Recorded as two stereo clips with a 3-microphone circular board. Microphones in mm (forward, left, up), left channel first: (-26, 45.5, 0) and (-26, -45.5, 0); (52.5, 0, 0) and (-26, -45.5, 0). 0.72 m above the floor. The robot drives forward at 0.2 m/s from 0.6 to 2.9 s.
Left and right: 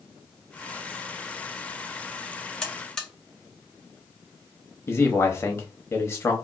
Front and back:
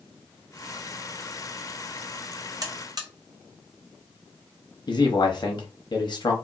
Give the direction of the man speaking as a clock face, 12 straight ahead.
11 o'clock.